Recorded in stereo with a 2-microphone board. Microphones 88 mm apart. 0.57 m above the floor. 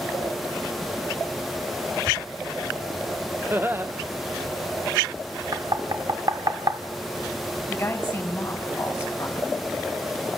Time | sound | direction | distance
3.5 | laughter | 25° right (ahead or behind) | 0.9 m
5.5 | knocking | 50° right (ahead or behind) | 1.1 m
7.7 | a woman speaking | 20° left (ahead or behind) | 5 m